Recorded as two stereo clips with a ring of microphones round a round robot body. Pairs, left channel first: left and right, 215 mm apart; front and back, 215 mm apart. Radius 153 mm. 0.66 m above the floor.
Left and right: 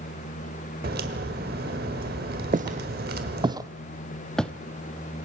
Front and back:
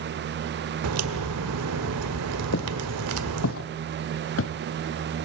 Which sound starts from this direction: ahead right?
Footsteps, at 2.5 s.